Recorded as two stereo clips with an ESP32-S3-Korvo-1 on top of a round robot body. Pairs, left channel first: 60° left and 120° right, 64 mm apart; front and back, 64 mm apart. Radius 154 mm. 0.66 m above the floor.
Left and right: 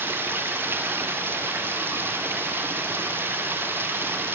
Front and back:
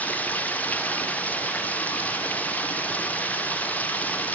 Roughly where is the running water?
Ahead right.